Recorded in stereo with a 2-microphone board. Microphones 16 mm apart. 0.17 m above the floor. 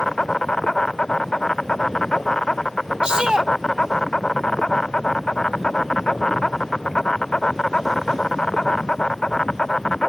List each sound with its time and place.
0.0 s an insect: 50° left (ahead or behind)
3.0 s a shout: 50° right (ahead or behind)